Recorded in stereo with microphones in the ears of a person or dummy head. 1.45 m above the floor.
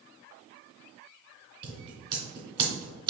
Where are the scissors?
25° right (ahead or behind), 2 m.